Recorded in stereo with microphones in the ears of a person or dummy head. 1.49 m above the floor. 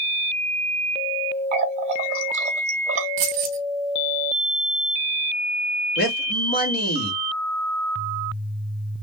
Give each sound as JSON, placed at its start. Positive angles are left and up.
{"t": 1.5, "sound": "a running tap", "side_deg": -45, "distance_m": 0.9}
{"t": 3.2, "sound": "keys jangling", "side_deg": -40, "distance_m": 0.5}
{"t": 6.0, "sound": "a man speaking", "side_deg": 50, "distance_m": 1.2}